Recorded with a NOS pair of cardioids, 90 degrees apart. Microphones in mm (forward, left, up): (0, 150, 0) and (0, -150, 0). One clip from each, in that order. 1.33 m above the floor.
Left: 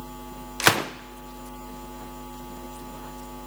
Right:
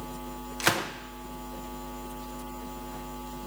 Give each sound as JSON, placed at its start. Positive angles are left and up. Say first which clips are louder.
{"t": 0.6, "sound": "a gunshot", "louder": "left 6 dB", "azimuth_deg": 30, "distance_m": 0.6}